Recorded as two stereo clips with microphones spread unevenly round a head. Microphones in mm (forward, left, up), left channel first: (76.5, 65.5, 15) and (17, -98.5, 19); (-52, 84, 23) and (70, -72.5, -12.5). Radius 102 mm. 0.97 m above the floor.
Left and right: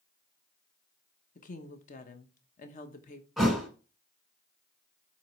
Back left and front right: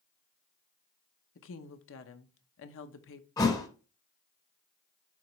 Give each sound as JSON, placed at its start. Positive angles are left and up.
{"t": 1.4, "sound": "a woman speaking", "azimuth_deg": 110, "distance_m": 0.9}
{"t": 3.4, "sound": "a thud", "azimuth_deg": 165, "distance_m": 1.0}